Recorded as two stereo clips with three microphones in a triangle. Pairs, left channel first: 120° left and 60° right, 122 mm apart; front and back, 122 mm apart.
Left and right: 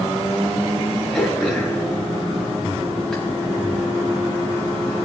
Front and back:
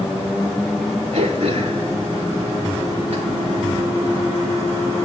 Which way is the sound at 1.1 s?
155° right.